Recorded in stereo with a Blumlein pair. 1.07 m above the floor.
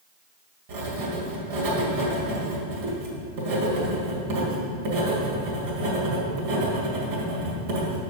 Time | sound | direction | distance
0.7 | writing | 50° right | 1.9 m